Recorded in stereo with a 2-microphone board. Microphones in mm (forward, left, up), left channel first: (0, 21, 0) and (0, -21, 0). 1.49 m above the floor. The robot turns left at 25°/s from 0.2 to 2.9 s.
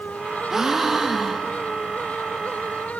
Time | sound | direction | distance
0.5 | a gasp | 10° right (ahead or behind) | 0.8 m